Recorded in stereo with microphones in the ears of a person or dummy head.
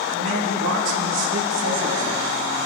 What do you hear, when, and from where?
0.1 s a man speaking: 80° right, 5 m